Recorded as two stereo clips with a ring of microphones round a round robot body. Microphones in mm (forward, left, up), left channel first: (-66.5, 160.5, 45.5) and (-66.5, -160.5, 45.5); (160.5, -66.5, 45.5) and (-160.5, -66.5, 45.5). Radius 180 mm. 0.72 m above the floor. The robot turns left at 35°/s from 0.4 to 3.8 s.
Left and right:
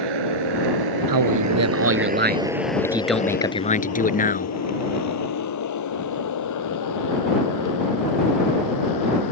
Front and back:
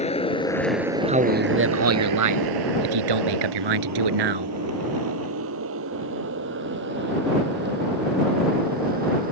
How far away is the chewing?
No chewing in this recording.